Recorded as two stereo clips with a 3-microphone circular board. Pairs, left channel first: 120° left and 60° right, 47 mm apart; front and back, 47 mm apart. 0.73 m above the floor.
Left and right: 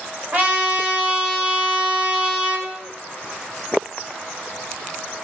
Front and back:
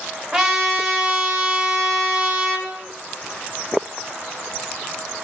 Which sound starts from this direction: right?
A trumpet, at 0.3 s.